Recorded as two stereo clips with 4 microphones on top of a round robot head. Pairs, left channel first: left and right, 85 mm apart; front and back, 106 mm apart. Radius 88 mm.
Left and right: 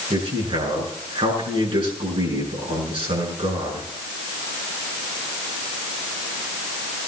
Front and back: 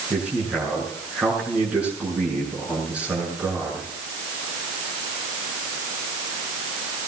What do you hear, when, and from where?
0.1 s a man speaking: 100° right, 7.5 m